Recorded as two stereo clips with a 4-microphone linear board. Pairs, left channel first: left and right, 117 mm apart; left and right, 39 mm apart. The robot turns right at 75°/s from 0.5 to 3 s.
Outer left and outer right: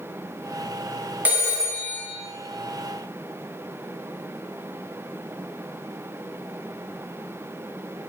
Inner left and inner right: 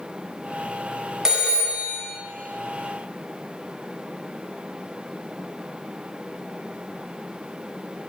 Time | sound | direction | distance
1.2 | a phone ringing | 160° right | 0.6 m